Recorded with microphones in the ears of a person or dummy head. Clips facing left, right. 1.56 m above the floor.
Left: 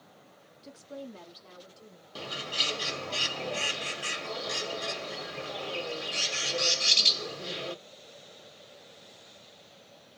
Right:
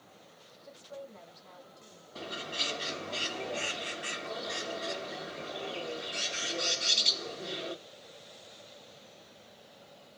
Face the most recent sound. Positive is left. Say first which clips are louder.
# left 1 dB
turn(degrees=45)  # may be behind; listen again after turning